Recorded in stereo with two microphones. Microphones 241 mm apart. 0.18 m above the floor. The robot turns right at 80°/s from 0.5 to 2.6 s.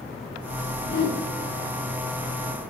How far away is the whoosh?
About 4.5 m.